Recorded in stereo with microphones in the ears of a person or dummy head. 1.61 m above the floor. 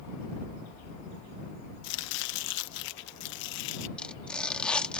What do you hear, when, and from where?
1.8 s chopping: 75° left (ahead or behind)
4.0 s tearing paper: 15° left (ahead or behind)